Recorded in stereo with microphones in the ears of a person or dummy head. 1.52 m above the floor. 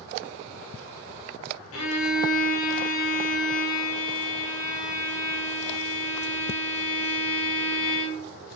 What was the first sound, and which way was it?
A violin, 75° left (ahead or behind).